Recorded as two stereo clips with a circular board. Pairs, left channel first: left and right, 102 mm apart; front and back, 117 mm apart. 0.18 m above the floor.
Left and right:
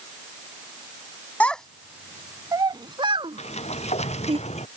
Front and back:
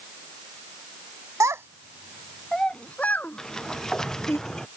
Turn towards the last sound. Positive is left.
turn(degrees=85)